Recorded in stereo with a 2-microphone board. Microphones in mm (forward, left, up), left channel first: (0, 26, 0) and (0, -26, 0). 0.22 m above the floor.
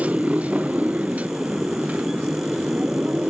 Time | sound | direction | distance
0.0 | a motorcycle | 25° right (ahead or behind) | ?